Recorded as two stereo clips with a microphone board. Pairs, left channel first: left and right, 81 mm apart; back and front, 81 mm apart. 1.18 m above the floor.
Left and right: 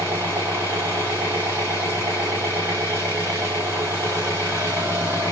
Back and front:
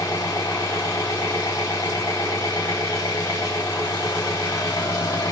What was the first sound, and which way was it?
An engine running, 145° right.